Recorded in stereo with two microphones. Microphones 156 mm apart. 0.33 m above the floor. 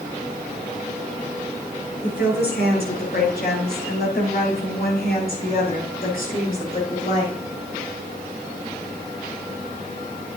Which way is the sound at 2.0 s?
70° left (ahead or behind).